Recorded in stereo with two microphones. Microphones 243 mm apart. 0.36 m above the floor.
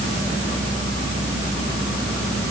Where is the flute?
I don't hear a flute.